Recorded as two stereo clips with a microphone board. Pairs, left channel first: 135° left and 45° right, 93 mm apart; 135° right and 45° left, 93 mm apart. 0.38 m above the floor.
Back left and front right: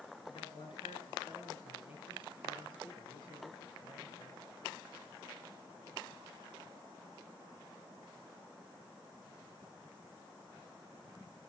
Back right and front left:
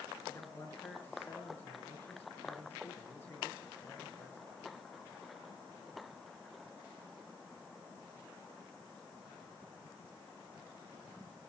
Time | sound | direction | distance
0.3 | a man speaking | 160° left | 6 m